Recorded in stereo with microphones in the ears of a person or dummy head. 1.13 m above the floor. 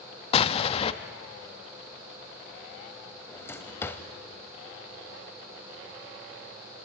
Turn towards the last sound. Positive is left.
turn(degrees=15)  # may be behind; listen again after turning